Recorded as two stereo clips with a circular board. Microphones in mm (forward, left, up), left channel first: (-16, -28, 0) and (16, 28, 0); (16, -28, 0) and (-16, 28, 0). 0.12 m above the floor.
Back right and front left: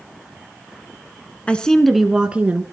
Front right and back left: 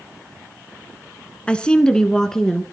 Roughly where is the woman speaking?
Right.